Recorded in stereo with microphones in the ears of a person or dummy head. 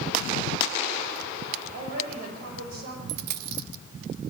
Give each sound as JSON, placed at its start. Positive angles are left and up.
{"t": 1.7, "sound": "a woman speaking", "side_deg": -55, "distance_m": 7.5}
{"t": 3.1, "sound": "a dropped coin", "side_deg": -55, "distance_m": 1.5}